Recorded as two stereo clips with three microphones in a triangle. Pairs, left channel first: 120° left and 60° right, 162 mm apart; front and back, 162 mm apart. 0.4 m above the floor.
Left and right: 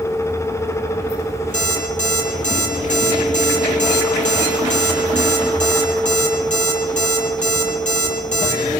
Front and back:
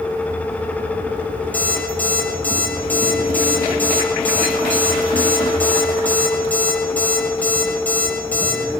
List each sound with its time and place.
1.5 s an alarm clock: 80° left, 8.5 m